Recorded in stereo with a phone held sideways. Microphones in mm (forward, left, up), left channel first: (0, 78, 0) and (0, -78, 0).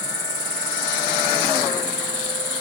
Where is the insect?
45° left (ahead or behind), 1.3 m.